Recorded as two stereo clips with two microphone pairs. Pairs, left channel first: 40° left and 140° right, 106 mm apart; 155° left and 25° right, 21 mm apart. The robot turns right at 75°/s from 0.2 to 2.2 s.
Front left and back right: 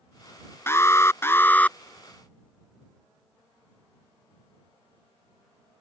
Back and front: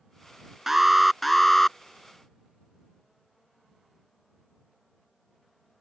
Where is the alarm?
20° left; by 1.8 s 105° left.